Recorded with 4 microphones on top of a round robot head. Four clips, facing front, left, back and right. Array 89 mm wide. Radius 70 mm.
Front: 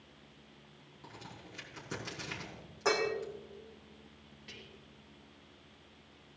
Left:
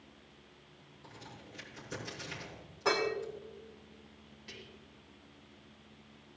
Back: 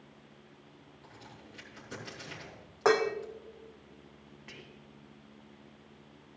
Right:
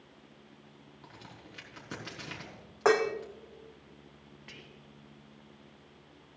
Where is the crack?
70° right, 4 m.